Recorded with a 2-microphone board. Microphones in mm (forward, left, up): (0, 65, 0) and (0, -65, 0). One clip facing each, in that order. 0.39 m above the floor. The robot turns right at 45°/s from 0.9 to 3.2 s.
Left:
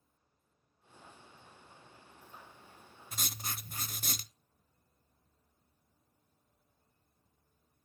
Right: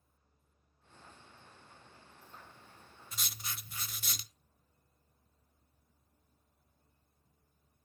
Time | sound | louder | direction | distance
3.1 | writing | left 4 dB | 50° left (ahead or behind) | 0.6 m